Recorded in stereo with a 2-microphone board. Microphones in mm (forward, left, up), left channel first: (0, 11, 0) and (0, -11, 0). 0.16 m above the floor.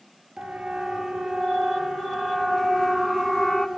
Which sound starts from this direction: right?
A siren, at 0.4 s.